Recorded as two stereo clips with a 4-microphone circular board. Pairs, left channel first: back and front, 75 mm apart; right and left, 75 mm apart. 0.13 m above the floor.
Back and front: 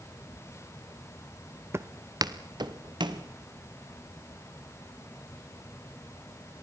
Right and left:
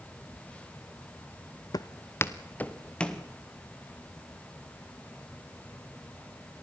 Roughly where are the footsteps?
Ahead right.